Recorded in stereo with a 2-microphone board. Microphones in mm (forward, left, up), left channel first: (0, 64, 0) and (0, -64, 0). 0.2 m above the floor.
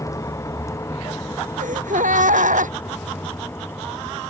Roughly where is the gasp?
Right.